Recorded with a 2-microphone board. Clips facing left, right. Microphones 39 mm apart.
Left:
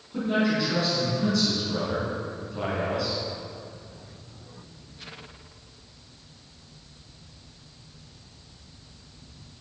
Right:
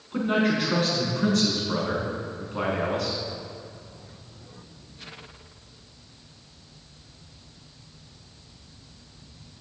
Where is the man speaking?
50° right (ahead or behind), 4.5 m.